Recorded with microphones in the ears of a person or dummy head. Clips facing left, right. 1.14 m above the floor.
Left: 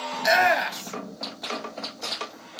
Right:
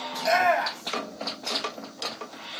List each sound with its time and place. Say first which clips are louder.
0.1 s a shout: left 1 dB; 15° left (ahead or behind), 1.5 m; by 1.2 s 45° left (ahead or behind), 1.1 m